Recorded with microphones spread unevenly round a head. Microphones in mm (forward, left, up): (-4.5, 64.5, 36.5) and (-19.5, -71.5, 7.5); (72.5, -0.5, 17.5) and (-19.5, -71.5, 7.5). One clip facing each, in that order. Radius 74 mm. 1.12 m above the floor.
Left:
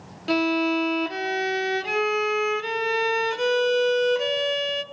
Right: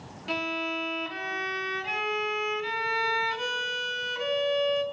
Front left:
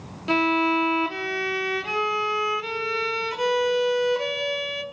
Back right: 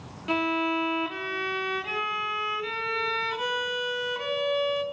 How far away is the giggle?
No giggle in this recording.